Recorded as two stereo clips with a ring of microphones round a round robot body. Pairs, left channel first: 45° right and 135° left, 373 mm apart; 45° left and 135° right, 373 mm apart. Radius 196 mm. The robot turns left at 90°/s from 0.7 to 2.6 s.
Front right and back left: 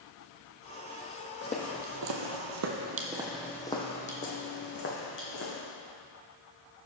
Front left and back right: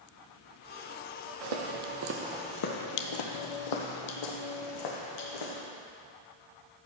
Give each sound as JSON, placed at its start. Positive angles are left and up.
{"t": 1.4, "sound": "footsteps", "azimuth_deg": -105, "distance_m": 1.2}